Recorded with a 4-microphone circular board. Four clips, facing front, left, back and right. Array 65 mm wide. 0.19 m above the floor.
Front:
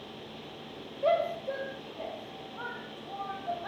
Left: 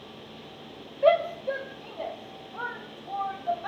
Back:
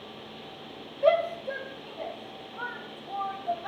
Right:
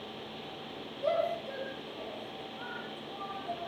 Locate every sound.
1.0 s a shout: 105° left, 4 m; by 3.7 s 90° left, 7.5 m